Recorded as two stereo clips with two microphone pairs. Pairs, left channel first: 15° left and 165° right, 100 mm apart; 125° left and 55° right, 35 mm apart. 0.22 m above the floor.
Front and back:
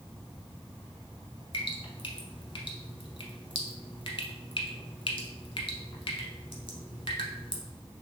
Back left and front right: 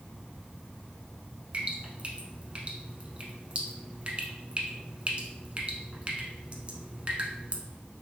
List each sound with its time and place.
1.5 s dripping: 5° right, 0.8 m